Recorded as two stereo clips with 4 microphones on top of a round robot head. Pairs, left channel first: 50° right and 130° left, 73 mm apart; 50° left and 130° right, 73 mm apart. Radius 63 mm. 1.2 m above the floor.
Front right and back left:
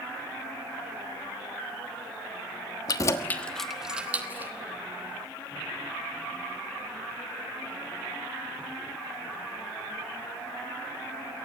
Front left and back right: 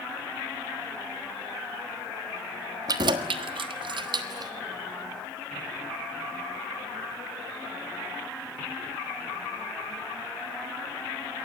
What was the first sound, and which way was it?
Keys jangling, 90° right.